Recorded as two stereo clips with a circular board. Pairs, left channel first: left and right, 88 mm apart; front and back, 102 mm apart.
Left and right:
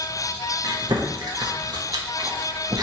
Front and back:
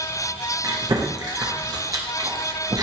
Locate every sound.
0.6 s chewing: 130° right, 1.2 m